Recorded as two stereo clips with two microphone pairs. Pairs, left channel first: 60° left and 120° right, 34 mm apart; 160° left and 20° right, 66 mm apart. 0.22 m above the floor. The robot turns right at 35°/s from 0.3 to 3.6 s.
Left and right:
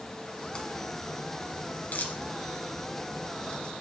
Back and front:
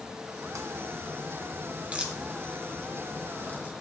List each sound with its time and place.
0.4 s a crack: 5° right, 1.7 m; by 3.7 s 110° left, 1.7 m